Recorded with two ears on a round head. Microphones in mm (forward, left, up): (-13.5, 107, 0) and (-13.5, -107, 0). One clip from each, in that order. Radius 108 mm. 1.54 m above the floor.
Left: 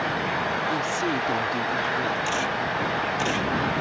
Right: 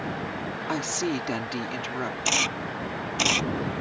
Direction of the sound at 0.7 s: 45° right (ahead or behind).